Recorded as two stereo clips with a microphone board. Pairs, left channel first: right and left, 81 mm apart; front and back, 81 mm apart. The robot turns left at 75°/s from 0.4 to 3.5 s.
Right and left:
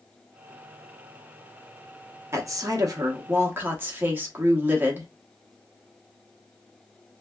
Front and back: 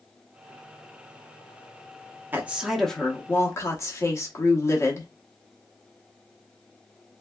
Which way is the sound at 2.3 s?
125° left.